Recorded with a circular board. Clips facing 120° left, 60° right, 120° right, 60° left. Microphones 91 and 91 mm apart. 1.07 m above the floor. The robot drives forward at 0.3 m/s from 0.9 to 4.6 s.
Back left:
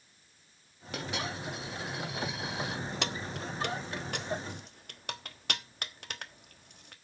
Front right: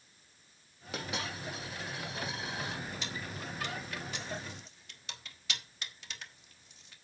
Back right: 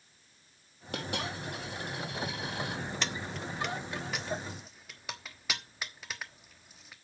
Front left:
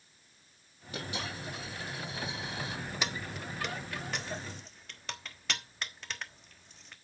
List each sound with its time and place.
0.9 s a dropped coin: 150° right, 4.5 m
3.0 s keys jangling: 140° left, 0.8 m; by 7.0 s 155° left, 1.2 m